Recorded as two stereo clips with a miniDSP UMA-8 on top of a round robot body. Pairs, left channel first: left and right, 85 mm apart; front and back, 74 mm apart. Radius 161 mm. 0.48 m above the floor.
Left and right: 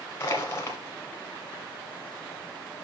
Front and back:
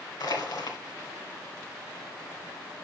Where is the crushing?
30° left, 1.4 m.